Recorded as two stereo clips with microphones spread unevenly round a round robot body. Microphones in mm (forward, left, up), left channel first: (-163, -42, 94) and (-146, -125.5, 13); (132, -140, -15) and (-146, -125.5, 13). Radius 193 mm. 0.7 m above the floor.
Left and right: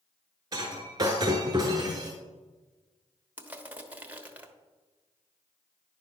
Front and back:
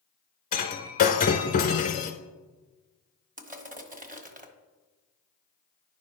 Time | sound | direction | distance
0.5 | breaking glass | 45° left | 0.7 m
3.4 | crushing | 120° right | 1.3 m